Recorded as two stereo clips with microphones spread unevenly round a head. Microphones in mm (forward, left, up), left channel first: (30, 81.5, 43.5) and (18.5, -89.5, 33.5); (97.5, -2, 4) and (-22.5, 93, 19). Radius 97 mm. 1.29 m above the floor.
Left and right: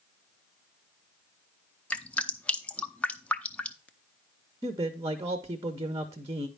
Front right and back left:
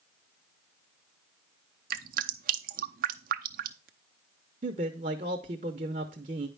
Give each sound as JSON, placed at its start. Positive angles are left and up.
{"t": 1.9, "sound": "dripping", "azimuth_deg": 170, "distance_m": 0.6}
{"t": 4.6, "sound": "a man speaking", "azimuth_deg": -165, "distance_m": 0.6}